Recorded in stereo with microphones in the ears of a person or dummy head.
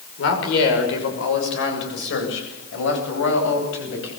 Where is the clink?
No clink in this recording.